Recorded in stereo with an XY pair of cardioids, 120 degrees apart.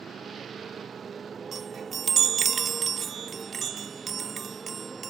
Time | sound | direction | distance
0.0 | a motorcycle | 40° right | ?
1.5 | a chime | 45° right | ?